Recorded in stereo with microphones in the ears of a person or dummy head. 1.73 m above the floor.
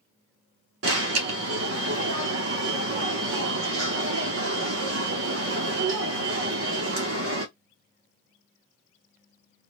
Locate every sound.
0.8 s an alarm: 70° right (ahead or behind), 1.0 m